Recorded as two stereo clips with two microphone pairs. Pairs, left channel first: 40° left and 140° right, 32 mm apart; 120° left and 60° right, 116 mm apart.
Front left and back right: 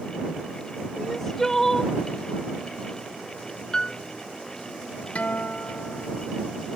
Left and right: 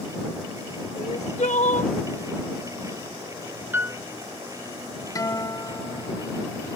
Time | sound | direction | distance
1.0 | crying | 115° left | ?
3.7 | a piano | 5° right | ?
5.2 | a guitar | 65° left | ?